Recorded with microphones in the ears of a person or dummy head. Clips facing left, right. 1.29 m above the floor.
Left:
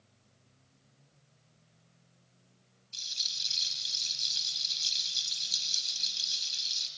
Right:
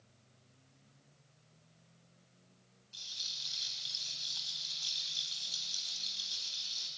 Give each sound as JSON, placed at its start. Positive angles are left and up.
{"t": 2.9, "sound": "a rattle", "side_deg": 35, "distance_m": 3.0}